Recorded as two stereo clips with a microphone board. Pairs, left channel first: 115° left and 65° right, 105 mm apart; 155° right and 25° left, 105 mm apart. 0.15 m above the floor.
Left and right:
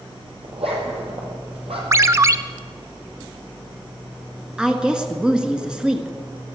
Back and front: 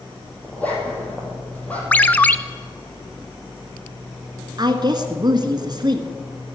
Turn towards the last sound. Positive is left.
turn(degrees=10)